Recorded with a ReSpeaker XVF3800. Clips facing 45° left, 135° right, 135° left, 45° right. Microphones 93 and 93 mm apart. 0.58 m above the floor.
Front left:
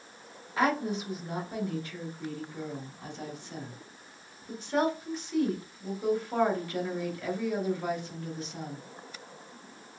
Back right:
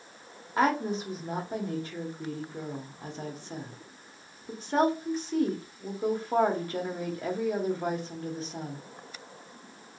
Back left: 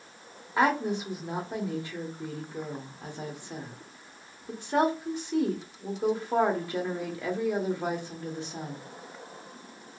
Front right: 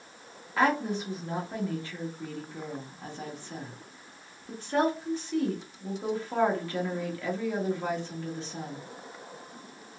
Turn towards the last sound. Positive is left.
turn(degrees=-165)